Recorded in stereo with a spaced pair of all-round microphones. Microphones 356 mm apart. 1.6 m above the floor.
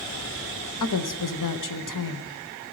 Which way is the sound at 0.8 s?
60° left (ahead or behind).